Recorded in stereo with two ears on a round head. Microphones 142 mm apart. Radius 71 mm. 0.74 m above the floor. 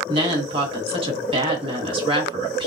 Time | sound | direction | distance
0.1 | a woman speaking | 35° right (ahead or behind) | 1.5 m